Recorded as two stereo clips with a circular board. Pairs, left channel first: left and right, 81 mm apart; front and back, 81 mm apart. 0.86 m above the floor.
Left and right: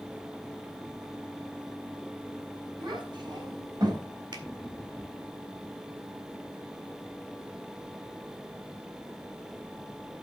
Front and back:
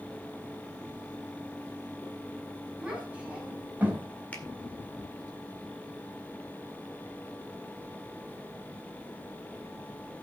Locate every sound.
2.8 s a child speaking: 105° right, 5 m; by 4.0 s 115° right, 4 m
4.3 s a finger snap: 70° right, 2 m